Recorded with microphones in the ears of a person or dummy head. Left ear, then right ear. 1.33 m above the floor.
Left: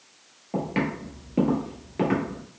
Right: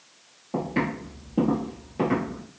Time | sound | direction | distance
0.5 | footsteps | 30° left (ahead or behind) | 1.7 m